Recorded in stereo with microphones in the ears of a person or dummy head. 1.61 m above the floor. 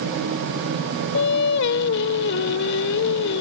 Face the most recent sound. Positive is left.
turn(degrees=75)  # may be behind; listen again after turning